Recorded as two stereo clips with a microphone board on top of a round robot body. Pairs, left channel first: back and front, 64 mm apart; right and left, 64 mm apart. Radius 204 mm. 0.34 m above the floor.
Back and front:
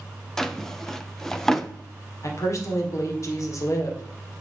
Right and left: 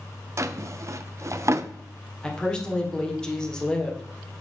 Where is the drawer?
100° left, 0.6 m.